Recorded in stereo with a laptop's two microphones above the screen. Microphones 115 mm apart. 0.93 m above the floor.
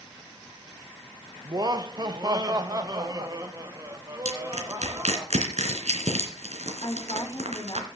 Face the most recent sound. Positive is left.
turn(degrees=40)  # may be behind; listen again after turning